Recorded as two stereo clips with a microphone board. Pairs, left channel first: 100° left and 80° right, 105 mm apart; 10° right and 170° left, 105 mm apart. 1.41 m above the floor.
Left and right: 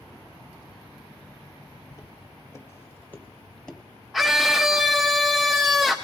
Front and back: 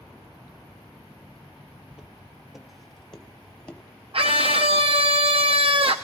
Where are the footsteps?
95° left, 1.7 m; by 3.8 s 20° left, 1.4 m.